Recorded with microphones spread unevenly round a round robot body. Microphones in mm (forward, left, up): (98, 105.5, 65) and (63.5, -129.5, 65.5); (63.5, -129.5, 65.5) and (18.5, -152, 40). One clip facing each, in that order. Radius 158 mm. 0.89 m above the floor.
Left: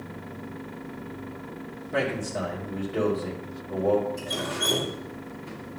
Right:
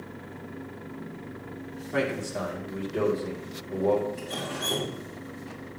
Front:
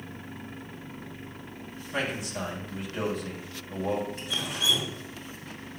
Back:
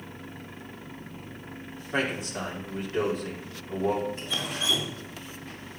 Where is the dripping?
155° left, 2.5 m.